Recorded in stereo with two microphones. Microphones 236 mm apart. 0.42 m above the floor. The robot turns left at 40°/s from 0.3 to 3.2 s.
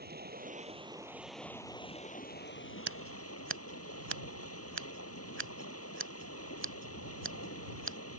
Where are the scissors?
70° right (ahead or behind); by 8.0 s 55° right (ahead or behind).